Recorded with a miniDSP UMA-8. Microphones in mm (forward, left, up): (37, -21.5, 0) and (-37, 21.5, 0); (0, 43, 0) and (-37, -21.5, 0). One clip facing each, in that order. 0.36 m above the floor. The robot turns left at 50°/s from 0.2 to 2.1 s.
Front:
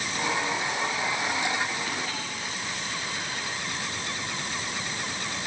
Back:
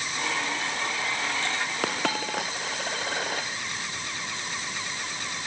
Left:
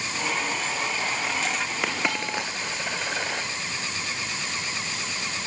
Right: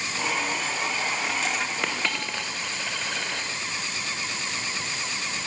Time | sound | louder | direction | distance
1.8 | a dropped coin | back 5 dB, left 2 dB | 145° left | 3.5 m